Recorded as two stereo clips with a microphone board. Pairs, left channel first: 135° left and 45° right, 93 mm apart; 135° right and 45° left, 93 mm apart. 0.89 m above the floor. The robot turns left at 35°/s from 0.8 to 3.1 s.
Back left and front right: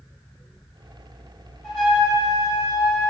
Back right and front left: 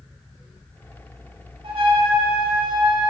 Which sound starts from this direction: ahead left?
A trumpet, at 1.6 s.